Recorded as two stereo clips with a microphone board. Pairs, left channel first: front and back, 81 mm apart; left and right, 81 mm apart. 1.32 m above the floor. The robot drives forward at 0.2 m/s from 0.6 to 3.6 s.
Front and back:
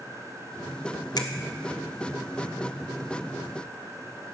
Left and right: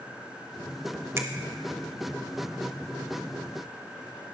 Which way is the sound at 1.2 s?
35° right.